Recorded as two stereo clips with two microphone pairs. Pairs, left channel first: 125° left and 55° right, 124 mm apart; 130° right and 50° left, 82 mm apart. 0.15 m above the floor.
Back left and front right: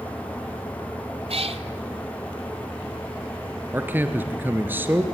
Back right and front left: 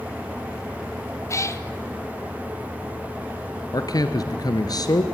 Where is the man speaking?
125° right, 1.9 m.